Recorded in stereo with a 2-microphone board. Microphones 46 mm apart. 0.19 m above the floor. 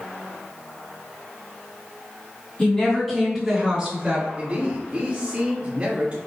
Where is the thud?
No thud in this recording.